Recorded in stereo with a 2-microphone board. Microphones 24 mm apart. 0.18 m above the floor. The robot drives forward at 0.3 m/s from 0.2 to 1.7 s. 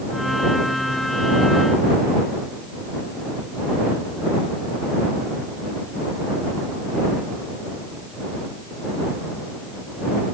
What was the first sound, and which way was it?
Only background noise.